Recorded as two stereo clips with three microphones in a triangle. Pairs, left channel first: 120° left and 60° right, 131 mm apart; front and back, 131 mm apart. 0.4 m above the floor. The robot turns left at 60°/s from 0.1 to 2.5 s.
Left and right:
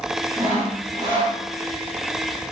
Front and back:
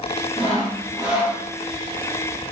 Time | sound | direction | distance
0.4 | sawing | 45° right | 1.3 m